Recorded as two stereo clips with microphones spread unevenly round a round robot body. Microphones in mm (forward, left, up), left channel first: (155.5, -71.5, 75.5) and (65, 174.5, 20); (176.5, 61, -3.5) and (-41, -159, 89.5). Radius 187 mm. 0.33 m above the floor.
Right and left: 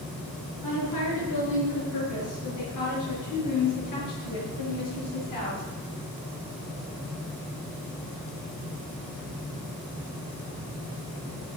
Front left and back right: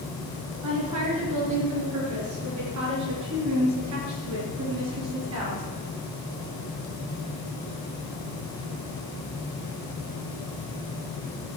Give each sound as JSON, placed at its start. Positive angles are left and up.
{"t": 0.6, "sound": "a woman speaking", "azimuth_deg": -110, "distance_m": 6.5}